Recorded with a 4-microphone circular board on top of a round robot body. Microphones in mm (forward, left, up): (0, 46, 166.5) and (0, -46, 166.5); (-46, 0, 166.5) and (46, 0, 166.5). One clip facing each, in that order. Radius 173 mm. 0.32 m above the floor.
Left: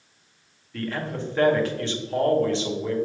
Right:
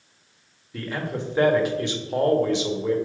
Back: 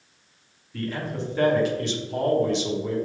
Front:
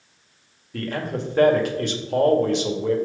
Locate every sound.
0.7 s a man speaking: 20° right, 2 m